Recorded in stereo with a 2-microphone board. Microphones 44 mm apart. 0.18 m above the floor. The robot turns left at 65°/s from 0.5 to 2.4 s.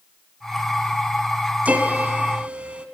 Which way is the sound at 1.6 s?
75° right.